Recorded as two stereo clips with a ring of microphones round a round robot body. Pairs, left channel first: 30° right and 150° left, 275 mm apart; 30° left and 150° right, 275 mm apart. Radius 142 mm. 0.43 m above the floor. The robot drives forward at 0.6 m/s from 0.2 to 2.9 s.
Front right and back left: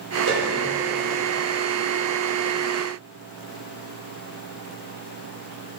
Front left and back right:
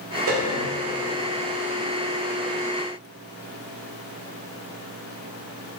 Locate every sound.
0.3 s a piano: 170° right, 1.3 m; by 0.7 s 175° right, 1.6 m